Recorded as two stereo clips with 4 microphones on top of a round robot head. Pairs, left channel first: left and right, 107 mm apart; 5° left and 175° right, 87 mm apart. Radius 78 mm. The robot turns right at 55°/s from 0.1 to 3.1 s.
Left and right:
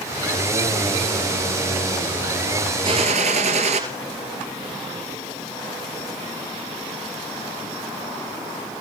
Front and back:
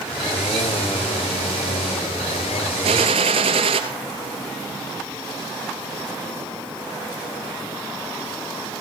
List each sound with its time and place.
2.8 s a gunshot: 145° right, 2.5 m; by 3.8 s 130° right, 2.5 m